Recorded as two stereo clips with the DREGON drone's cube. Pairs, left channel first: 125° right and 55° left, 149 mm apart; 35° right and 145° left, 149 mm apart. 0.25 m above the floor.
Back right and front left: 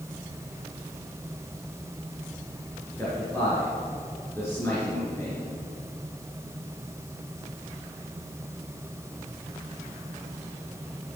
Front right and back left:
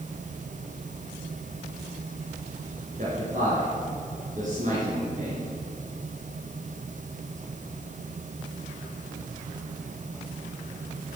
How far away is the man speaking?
About 3.5 m.